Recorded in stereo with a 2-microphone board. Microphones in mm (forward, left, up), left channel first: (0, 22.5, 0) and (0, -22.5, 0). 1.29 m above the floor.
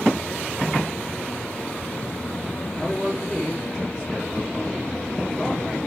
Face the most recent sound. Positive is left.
turn(degrees=0)  # may be behind; listen again after turning